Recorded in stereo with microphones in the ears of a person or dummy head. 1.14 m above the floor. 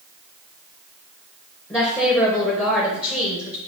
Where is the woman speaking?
10° left (ahead or behind), 0.9 m.